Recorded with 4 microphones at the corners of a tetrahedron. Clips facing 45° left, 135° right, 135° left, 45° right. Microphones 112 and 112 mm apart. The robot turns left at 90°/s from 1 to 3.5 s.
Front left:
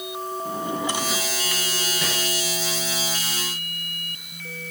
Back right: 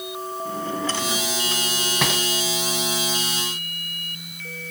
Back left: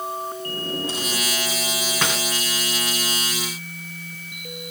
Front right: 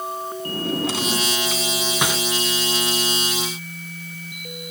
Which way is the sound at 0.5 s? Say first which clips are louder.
Even, front right 4 dB; 30° right.